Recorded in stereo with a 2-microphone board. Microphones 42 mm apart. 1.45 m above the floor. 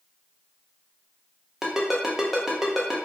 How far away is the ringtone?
About 0.6 m.